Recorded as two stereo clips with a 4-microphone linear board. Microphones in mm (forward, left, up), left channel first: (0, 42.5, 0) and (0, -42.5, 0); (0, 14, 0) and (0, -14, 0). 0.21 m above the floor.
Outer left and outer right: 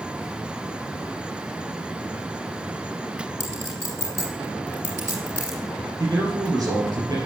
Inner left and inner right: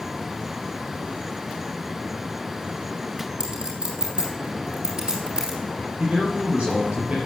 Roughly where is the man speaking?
Right.